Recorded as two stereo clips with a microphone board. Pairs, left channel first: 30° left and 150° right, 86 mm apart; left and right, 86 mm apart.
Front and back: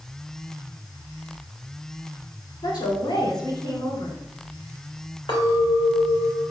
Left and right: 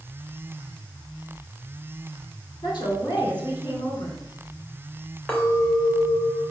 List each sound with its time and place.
2.6 s a woman speaking: 60° left, 3.5 m
5.3 s a clink: 15° left, 2.5 m